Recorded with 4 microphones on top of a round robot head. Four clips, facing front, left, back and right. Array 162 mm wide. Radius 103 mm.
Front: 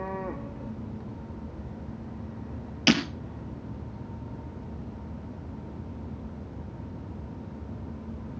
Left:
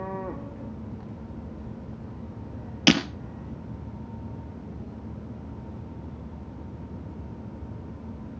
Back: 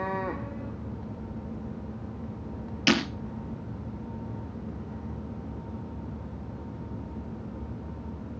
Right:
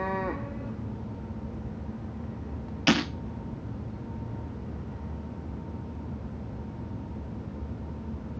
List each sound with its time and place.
2.9 s breaking glass: 85° left, 3.5 m